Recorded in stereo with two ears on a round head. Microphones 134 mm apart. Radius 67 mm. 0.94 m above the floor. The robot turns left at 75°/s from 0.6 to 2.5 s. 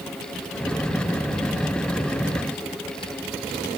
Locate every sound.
Only background noise.